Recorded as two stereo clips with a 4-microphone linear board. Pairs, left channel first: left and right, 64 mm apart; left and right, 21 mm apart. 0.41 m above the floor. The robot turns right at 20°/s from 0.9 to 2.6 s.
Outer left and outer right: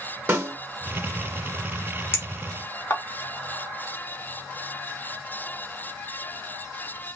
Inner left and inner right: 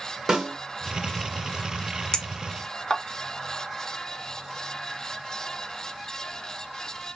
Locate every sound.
0.3 s a snare drum: 30° right (ahead or behind), 1.1 m
2.1 s a clink: 35° left (ahead or behind), 0.6 m